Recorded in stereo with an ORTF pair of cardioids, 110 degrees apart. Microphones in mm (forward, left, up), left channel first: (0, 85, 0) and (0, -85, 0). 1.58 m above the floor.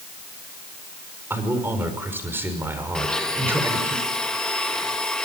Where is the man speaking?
15° right, 5.5 m.